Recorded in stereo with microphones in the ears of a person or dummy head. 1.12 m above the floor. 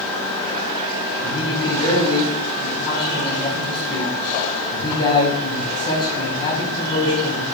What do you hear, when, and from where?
1.2 s a man speaking: 30° left (ahead or behind), 10 m